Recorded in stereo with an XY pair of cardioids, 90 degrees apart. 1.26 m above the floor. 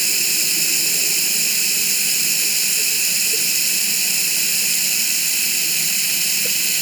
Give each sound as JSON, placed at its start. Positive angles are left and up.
{"t": 0.0, "sound": "running water", "azimuth_deg": -20}